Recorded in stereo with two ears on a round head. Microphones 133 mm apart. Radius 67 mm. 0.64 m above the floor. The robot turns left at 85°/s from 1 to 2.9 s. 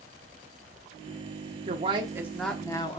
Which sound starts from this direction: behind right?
A woman speaking, at 1.7 s.